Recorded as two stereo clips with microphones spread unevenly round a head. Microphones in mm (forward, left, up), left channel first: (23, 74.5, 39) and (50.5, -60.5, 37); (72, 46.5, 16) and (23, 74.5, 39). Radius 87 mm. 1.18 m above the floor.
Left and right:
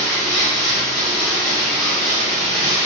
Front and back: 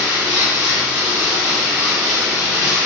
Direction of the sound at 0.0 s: 175° right.